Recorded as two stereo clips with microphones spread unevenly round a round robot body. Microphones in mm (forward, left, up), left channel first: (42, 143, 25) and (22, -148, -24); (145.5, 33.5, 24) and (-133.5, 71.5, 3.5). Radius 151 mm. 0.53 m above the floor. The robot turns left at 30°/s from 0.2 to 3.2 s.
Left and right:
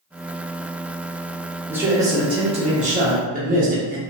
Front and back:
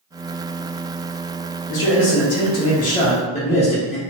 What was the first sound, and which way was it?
A man speaking, 25° right.